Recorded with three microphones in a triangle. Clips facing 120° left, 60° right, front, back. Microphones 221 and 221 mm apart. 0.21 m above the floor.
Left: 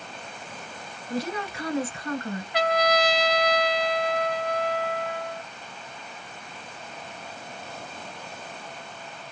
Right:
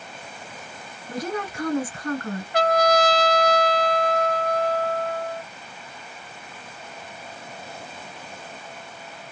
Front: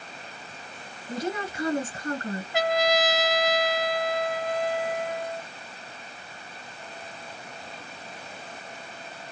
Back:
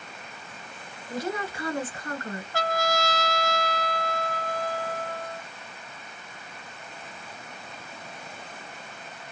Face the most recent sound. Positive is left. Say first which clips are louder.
# right 4 dB, front 4 dB
turn(degrees=-65)